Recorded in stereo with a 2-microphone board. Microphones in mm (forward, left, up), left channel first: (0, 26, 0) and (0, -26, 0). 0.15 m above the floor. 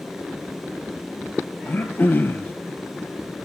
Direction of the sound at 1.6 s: 40° left (ahead or behind).